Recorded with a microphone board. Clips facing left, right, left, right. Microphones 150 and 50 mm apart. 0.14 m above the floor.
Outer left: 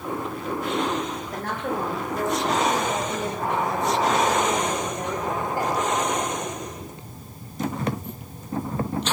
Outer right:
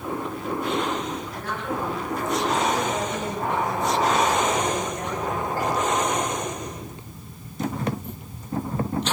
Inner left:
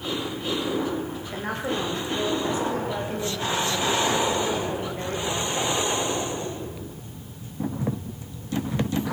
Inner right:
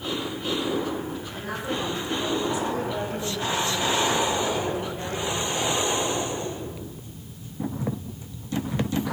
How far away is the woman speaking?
About 9 m.